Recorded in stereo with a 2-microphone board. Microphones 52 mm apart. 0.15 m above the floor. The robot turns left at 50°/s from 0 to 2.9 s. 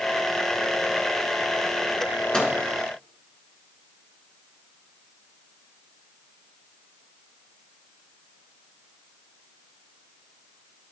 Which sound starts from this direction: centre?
A microwave, at 2.3 s.